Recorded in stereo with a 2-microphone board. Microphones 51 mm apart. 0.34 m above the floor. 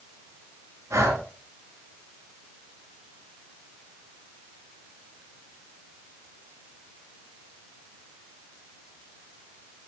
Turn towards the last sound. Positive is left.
turn(degrees=-75)  # may be behind; listen again after turning